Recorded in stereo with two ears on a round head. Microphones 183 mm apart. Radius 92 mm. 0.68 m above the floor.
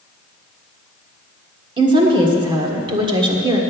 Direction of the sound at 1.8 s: 25° right (ahead or behind).